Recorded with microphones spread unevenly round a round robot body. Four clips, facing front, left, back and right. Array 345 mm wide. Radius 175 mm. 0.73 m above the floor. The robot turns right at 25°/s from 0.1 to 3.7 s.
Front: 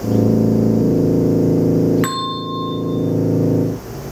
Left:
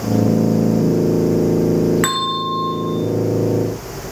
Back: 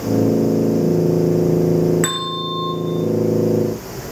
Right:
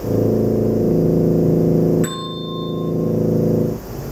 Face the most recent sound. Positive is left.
turn(degrees=130)